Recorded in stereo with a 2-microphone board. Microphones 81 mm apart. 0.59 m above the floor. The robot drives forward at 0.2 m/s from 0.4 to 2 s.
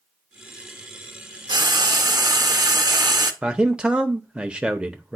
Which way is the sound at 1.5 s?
60° right (ahead or behind).